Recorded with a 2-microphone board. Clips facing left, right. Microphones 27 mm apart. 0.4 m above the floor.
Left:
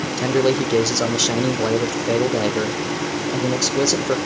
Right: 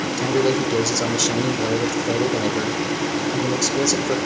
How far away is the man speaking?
About 0.7 m.